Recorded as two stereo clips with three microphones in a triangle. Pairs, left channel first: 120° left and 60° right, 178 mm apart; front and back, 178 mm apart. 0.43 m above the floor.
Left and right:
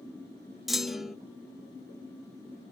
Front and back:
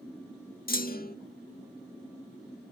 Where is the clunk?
30° left, 0.7 m.